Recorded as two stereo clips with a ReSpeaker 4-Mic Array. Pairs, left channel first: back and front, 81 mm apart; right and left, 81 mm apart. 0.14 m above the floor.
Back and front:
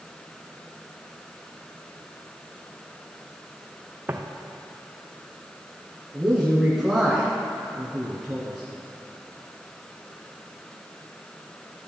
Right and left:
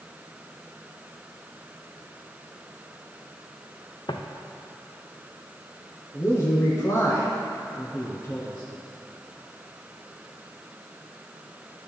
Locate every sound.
4.1 s footsteps: 65° right, 0.8 m
6.1 s a man speaking: 85° right, 1.3 m